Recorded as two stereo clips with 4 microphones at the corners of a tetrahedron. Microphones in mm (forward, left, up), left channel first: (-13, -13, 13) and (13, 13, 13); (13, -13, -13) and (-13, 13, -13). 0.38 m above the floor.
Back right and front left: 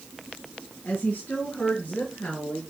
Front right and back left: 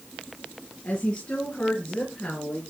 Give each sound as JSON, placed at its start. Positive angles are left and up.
{"t": 0.8, "sound": "a woman speaking", "azimuth_deg": -90, "distance_m": 4.0}